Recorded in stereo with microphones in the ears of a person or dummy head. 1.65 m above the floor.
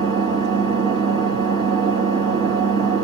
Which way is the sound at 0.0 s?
25° right (ahead or behind).